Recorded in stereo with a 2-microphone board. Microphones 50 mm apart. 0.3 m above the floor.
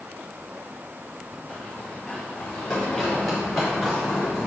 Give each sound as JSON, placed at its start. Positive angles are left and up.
{"t": 1.5, "sound": "running footsteps", "side_deg": 30, "distance_m": 4.5}